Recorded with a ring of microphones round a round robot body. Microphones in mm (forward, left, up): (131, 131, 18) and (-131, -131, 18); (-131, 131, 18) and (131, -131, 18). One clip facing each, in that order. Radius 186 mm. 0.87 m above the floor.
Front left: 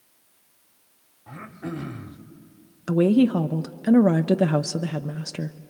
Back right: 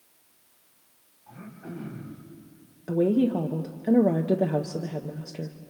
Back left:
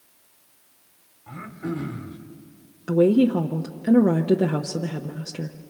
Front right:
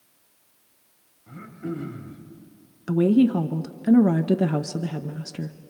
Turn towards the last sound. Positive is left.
turn(degrees=20)